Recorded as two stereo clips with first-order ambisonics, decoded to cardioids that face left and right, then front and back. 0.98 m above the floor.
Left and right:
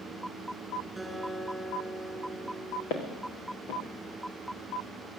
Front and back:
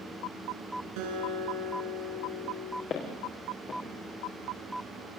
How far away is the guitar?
About 7 m.